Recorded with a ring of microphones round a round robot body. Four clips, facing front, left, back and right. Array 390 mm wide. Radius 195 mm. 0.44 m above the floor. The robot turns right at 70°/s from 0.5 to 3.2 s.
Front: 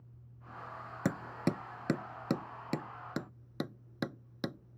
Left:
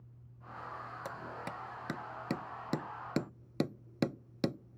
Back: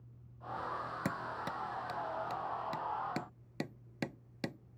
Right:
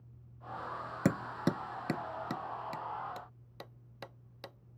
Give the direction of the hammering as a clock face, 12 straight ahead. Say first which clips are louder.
Right 14 dB, front 9 dB; 2 o'clock.